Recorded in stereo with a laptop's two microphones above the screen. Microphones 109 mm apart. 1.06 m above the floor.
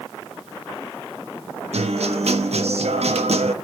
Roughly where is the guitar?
Right.